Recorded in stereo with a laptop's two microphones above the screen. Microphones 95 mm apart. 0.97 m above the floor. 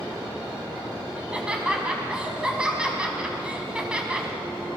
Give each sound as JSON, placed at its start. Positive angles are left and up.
{"t": 1.1, "sound": "laughter", "side_deg": -10, "distance_m": 6.0}